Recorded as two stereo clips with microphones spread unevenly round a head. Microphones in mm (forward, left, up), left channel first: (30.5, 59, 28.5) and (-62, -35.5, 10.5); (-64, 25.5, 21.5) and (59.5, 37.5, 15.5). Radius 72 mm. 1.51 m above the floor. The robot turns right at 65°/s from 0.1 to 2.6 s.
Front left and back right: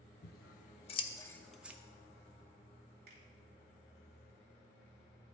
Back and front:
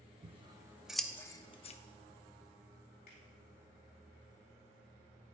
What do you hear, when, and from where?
0.2 s scissors: 50° left, 0.6 m; by 1.8 s 145° left, 0.6 m
3.1 s a finger snap: 145° right, 3 m